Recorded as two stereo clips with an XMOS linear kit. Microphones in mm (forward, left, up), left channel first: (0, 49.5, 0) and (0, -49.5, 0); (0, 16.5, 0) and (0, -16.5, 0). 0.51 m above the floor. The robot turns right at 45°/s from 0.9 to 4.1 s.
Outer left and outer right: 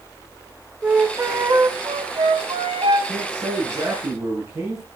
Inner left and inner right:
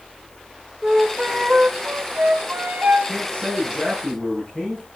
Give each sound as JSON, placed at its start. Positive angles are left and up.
{"t": 0.8, "sound": "a flute", "azimuth_deg": -170, "distance_m": 1.4}
{"t": 3.1, "sound": "a man speaking", "azimuth_deg": -70, "distance_m": 6.0}